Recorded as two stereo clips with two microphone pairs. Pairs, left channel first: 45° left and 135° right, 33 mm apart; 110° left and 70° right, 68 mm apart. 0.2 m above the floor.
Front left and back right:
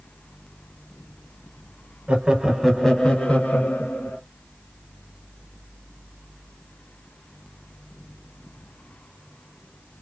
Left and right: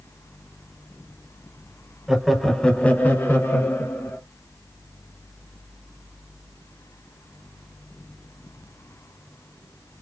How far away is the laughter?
About 1.1 m.